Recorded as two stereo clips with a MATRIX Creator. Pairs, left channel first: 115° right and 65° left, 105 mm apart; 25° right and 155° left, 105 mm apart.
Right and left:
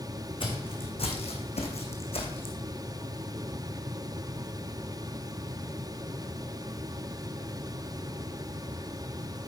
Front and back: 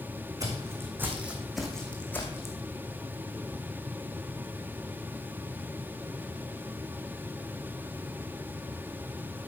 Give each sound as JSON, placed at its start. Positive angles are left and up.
{"t": 0.4, "sound": "footsteps", "azimuth_deg": -145, "distance_m": 2.0}